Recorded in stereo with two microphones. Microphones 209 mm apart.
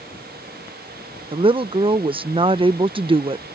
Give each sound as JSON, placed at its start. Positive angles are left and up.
{"t": 1.3, "sound": "a woman speaking", "side_deg": -25}